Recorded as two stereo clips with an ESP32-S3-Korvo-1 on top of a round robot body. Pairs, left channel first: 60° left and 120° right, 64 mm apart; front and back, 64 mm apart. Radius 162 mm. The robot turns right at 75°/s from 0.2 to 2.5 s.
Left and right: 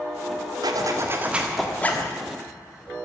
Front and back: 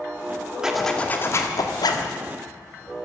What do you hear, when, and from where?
0.6 s a zipper: 100° right, 1.4 m; by 2.1 s 10° left, 1.4 m